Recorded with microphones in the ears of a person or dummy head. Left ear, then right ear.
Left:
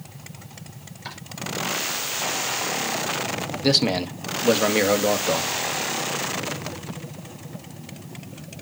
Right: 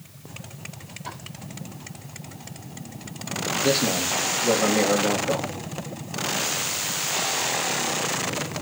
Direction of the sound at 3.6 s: 65° left (ahead or behind).